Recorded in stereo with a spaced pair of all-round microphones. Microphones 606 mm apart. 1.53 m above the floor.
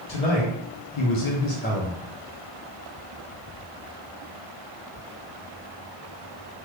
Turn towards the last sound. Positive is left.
turn(degrees=-5)  # may be behind; listen again after turning